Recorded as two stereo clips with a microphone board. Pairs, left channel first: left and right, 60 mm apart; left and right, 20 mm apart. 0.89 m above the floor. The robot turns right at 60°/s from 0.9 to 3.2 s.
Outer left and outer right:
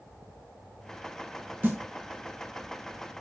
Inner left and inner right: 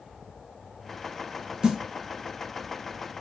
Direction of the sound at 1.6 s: 30° right (ahead or behind).